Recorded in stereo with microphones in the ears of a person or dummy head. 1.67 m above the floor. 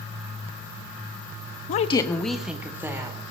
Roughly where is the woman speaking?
Left.